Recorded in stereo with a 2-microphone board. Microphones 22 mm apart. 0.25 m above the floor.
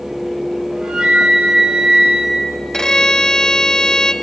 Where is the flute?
50° right (ahead or behind), 1.0 m.